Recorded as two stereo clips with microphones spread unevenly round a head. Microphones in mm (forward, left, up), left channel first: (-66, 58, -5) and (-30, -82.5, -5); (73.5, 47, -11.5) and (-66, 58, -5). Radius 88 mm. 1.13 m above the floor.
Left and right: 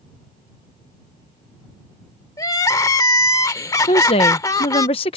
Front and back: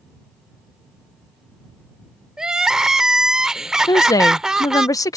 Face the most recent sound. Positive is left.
turn(degrees=55)